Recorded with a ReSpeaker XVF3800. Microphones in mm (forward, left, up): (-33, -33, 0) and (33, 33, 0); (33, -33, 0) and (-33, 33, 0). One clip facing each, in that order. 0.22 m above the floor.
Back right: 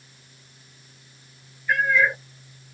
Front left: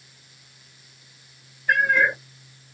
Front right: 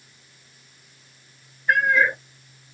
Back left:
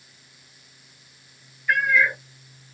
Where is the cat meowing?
10° left, 0.6 m.